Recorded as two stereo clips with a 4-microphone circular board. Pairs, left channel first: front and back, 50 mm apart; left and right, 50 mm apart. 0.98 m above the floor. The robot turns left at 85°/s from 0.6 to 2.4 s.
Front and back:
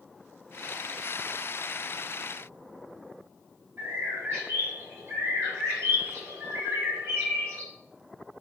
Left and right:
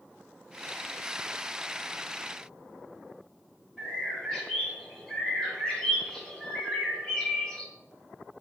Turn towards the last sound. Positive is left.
turn(degrees=170)